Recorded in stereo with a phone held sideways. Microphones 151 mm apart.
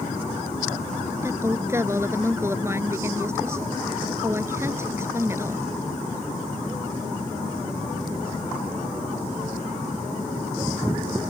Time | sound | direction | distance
1.2 | a woman speaking | 15° right (ahead or behind) | ?